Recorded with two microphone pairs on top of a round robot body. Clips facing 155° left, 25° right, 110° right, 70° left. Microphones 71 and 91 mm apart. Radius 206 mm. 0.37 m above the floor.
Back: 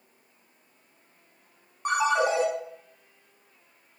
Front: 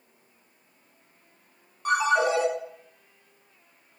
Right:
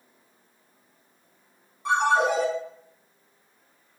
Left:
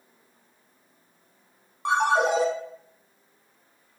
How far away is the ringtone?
About 1.6 m.